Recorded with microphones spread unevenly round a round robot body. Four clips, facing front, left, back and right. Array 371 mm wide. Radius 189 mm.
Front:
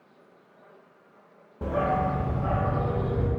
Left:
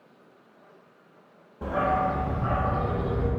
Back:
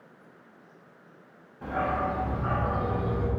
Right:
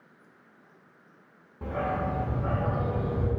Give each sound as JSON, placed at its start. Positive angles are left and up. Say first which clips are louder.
{"t": 1.6, "sound": "a dog barking", "louder": "left 5 dB, front 3 dB", "azimuth_deg": -5, "distance_m": 1.0}